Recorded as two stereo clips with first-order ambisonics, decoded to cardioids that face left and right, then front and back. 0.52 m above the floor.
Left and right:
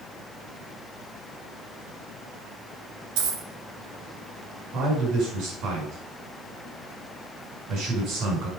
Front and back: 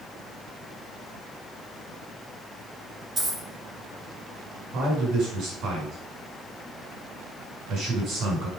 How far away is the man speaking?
About 5.5 m.